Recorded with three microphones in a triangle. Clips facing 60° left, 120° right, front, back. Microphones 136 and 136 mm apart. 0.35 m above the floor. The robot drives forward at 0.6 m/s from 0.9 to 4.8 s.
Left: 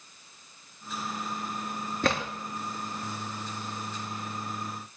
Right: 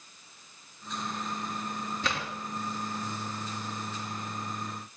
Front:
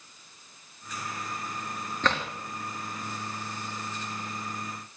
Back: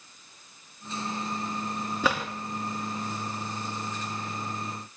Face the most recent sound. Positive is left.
turn(degrees=125)